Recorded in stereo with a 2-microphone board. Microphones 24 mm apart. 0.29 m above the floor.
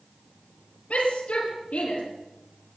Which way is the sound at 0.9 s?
75° left (ahead or behind).